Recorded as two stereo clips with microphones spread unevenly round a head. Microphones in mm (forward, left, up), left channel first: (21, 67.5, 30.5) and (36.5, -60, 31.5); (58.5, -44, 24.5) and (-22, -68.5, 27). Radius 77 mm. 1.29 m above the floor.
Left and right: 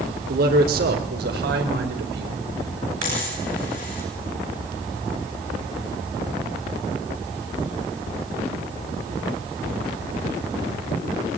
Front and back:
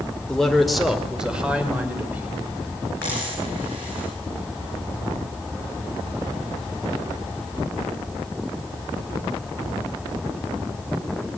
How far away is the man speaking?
About 3.5 m.